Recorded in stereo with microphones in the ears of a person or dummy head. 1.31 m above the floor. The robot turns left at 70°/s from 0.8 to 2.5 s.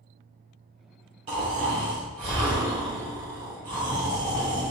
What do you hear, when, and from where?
1.3 s snoring: 40° right, 1.6 m; by 4.7 s 125° right, 1.6 m